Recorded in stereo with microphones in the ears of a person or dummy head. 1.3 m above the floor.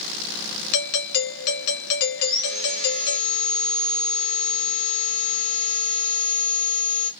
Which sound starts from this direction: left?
A doorbell, at 0.7 s.